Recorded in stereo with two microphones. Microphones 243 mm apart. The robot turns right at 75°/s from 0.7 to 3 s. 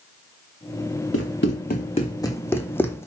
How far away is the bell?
No bell in this recording.